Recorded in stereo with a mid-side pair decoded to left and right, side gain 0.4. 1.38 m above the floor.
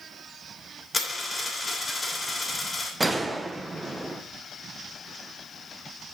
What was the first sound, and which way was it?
A dropped coin, 25° left.